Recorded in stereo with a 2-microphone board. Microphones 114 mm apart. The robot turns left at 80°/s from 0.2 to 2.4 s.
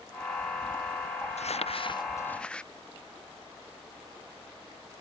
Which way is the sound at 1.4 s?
90° left.